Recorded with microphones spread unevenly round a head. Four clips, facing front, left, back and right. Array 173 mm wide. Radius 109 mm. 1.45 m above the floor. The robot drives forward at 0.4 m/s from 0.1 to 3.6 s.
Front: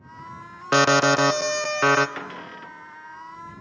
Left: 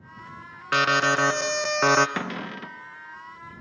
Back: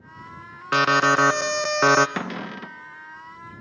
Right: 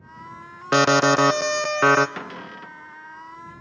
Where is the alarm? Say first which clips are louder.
Right 5 dB, front 1 dB; 55° right, 0.6 m; by 2.1 s 140° right, 0.6 m.